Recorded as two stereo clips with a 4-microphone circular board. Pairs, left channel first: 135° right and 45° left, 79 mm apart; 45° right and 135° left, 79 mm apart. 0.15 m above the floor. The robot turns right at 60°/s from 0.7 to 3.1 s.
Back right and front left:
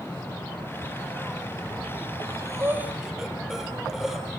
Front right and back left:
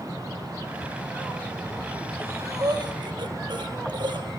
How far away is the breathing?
About 3.5 m.